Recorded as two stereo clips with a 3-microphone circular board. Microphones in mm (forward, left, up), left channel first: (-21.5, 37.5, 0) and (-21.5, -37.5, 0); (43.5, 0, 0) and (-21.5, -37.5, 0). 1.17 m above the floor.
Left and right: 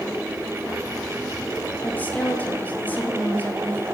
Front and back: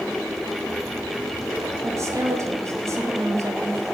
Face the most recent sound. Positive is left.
turn(degrees=160)